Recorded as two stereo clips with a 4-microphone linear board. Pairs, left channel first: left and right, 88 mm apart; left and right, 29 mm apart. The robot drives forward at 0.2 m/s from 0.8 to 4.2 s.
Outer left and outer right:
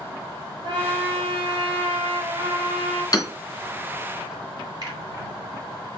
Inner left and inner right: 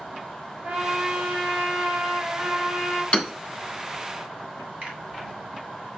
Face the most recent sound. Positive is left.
turn(degrees=-45)  # may be behind; listen again after turning